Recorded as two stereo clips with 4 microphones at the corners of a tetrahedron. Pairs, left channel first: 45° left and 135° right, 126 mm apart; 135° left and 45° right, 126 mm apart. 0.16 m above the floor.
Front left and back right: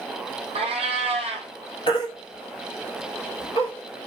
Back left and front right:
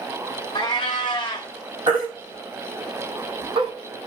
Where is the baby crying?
Straight ahead, 1.3 m.